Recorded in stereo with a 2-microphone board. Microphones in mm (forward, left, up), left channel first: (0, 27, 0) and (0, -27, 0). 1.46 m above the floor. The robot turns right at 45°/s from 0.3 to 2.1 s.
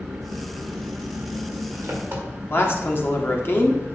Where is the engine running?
115° right, 1.9 m; by 4.0 s 35° right, 1.9 m.